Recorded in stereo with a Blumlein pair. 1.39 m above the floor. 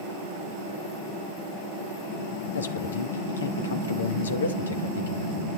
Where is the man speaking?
70° left, 1.6 m.